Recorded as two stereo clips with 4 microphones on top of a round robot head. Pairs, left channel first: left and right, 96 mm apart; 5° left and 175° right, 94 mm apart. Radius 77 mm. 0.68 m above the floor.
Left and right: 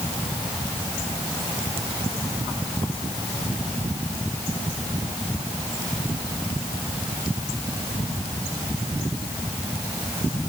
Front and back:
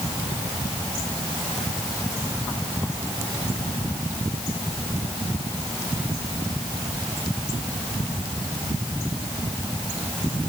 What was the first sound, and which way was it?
Only background noise.